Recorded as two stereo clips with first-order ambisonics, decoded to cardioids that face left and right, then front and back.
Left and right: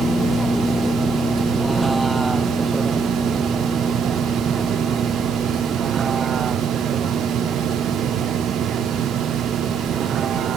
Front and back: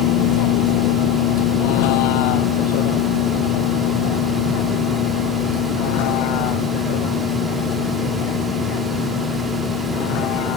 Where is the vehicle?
5° left; by 10.6 s 30° right.